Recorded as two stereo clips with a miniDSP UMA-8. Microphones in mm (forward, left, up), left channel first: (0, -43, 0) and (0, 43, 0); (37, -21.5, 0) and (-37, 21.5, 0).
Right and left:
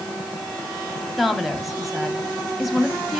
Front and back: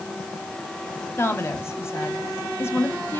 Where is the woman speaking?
5° left, 1.6 m.